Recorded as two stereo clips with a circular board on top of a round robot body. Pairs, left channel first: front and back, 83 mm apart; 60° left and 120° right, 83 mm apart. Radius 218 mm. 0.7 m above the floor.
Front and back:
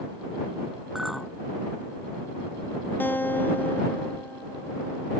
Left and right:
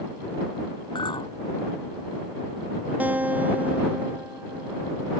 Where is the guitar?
55° right.